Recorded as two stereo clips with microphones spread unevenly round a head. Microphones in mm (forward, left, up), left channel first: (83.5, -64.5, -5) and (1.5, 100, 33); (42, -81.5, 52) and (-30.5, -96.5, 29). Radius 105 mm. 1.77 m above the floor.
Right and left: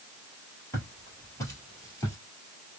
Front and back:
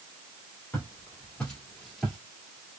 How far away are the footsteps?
About 2 m.